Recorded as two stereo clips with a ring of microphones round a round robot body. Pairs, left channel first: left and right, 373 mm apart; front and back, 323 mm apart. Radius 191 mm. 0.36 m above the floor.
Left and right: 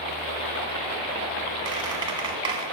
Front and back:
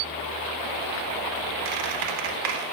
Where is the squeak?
170° right, 0.6 m.